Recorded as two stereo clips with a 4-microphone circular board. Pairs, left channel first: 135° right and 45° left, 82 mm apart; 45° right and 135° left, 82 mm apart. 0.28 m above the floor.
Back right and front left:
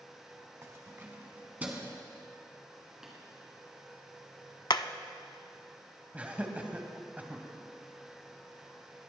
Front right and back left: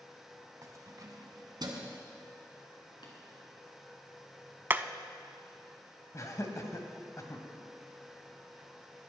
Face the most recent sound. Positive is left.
turn(degrees=-20)